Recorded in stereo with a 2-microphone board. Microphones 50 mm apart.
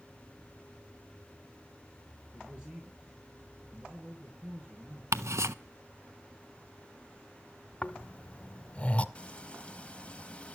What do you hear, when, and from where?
2.3 s a man speaking: 20° right (ahead or behind), 4 m
5.1 s ticking: 80° right, 0.5 m
7.8 s snoring: 30° left (ahead or behind), 0.7 m
9.2 s frying: 25° left (ahead or behind), 1.1 m